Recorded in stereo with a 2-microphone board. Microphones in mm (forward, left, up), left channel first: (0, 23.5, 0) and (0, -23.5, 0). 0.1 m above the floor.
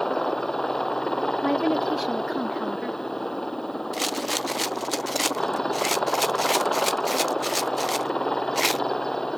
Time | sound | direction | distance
0.0 | a helicopter | 10° left (ahead or behind) | ?
1.4 | a woman speaking | centre (ahead or behind) | ?
3.9 | a rattle | centre (ahead or behind) | ?